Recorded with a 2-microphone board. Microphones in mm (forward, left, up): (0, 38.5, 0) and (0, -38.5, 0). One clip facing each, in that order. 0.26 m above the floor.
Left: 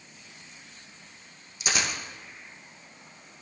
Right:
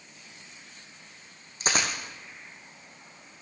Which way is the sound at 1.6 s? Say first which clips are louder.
Right 1 dB; 40° right (ahead or behind).